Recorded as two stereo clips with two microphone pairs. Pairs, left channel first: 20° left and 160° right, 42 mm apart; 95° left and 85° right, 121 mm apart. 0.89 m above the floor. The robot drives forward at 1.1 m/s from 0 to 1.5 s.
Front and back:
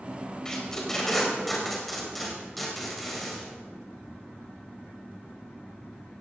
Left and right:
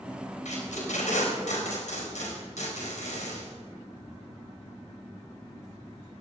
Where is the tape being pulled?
90° left, 4.5 m; by 3.5 s 105° left, 4.5 m.